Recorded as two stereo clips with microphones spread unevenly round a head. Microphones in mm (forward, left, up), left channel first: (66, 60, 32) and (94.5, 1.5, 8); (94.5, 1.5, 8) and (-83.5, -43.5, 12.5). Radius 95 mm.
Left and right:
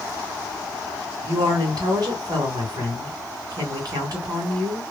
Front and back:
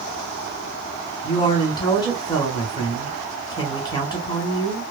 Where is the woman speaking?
55° right, 1.3 m.